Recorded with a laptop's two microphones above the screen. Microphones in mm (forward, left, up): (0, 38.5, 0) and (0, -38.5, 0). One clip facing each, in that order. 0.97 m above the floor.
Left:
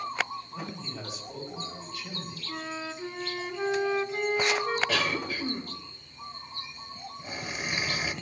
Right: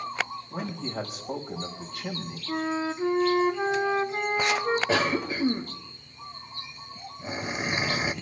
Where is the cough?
30° right (ahead or behind), 1.3 m.